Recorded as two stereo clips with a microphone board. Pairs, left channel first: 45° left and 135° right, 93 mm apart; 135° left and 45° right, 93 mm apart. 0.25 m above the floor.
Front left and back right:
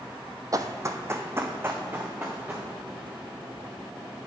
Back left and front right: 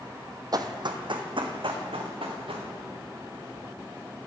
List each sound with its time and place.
0.5 s running footsteps: 85° right, 0.5 m; by 2.7 s 65° right, 1.7 m